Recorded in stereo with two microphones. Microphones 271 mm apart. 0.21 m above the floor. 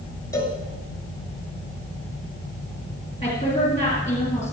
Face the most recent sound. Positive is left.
turn(degrees=25)  # may be behind; listen again after turning